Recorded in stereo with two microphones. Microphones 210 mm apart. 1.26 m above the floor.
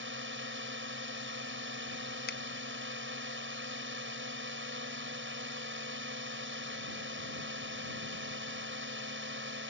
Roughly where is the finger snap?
Left.